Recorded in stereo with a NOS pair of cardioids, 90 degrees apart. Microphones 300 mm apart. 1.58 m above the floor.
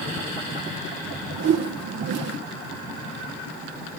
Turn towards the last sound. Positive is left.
turn(degrees=-55)